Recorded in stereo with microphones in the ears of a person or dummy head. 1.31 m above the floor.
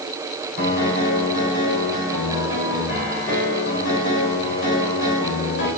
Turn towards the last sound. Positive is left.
turn(degrees=60)  # may be behind; listen again after turning